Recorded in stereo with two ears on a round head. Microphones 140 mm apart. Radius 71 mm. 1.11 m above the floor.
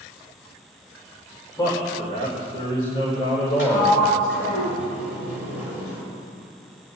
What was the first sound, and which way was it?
A man speaking, 25° left (ahead or behind).